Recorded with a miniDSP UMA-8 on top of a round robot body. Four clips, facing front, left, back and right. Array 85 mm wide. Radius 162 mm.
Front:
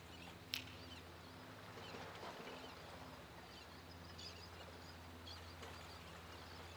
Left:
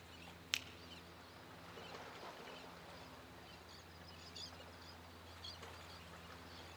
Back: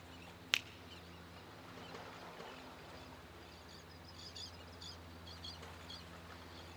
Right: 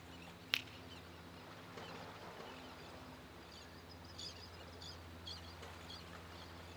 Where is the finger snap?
165° right, 0.8 m.